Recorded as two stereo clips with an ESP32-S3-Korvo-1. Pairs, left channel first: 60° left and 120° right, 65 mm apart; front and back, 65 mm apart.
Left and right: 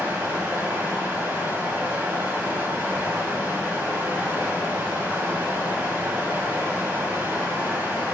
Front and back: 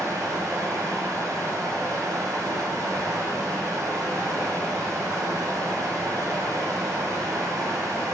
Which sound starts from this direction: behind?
Running water, at 0.0 s.